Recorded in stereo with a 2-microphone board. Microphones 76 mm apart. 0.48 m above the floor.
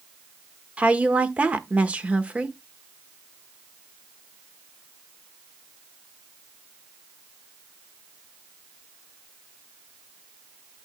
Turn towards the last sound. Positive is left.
turn(degrees=-20)  # may be behind; listen again after turning